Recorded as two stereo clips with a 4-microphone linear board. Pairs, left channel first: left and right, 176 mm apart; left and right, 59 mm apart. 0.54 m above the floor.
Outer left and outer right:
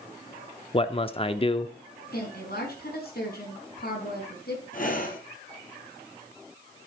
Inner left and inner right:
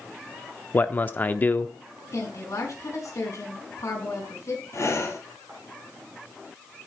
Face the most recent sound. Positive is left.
turn(degrees=55)  # may be behind; listen again after turning